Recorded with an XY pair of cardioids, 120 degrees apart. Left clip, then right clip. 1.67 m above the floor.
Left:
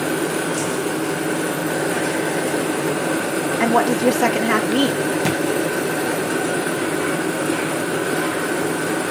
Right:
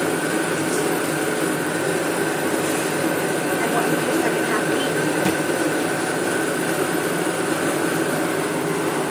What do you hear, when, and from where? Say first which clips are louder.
3.6 s a woman speaking: left 7 dB; 55° left, 3.5 m
5.2 s a thud: even; 20° left, 4.5 m